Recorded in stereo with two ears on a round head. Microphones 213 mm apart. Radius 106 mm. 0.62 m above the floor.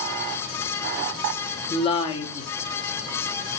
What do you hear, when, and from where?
1.7 s a woman speaking: 25° left (ahead or behind), 1.1 m